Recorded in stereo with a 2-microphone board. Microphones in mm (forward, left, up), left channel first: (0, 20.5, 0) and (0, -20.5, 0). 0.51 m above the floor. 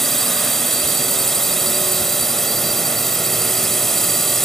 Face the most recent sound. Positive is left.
turn(degrees=5)  # may be behind; listen again after turning